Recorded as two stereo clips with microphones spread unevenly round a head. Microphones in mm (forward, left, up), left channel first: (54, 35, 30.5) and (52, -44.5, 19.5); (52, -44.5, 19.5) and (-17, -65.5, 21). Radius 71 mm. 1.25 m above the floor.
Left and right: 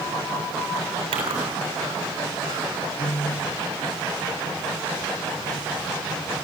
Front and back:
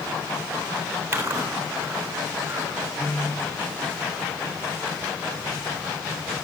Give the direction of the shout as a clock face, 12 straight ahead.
I don't hear a shout.